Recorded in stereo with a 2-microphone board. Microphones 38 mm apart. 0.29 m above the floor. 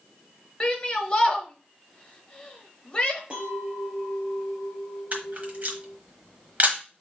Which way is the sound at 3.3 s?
35° right (ahead or behind).